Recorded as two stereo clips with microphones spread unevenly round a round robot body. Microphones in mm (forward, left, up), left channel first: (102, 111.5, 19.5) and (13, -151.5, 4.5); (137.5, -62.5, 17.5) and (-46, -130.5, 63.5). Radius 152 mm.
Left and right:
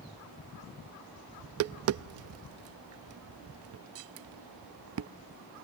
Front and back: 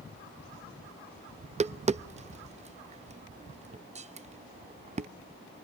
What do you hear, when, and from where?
1.4 s tapping: 95° right, 0.6 m